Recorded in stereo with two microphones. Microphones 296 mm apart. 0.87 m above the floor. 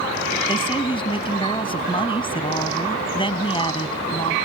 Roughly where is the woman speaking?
Centre.